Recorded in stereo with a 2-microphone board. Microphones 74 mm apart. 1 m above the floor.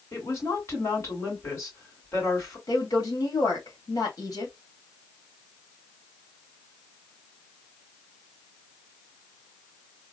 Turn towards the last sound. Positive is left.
turn(degrees=55)  # may be behind; listen again after turning